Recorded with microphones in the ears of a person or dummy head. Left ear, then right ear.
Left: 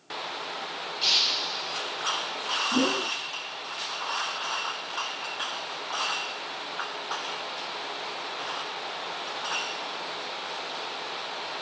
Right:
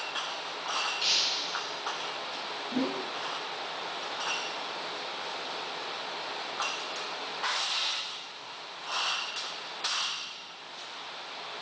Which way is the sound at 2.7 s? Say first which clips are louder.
Left 5 dB; 20° left (ahead or behind).